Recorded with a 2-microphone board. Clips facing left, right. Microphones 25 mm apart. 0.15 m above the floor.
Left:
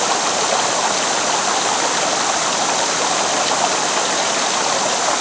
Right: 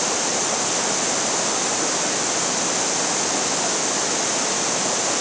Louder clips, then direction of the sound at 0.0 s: Left 5 dB; 65° left (ahead or behind).